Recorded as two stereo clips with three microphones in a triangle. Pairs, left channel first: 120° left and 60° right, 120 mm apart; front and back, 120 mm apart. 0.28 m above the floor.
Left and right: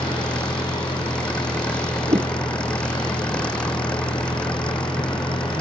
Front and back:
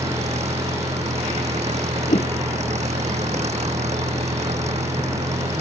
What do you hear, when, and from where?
0.0 s an engine running: 155° right
2.1 s a whoosh: 15° right